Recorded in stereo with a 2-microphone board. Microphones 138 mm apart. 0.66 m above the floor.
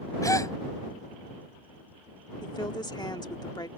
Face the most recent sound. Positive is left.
turn(degrees=30)  # may be behind; listen again after turning